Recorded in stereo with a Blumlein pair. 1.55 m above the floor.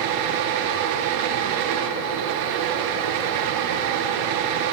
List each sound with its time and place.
0.0 s a fan: 45° right, 2 m